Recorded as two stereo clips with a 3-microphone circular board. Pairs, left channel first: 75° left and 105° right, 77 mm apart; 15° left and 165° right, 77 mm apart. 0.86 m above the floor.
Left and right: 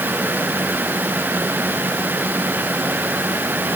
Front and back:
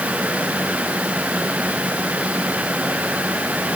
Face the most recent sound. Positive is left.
No sound to turn to.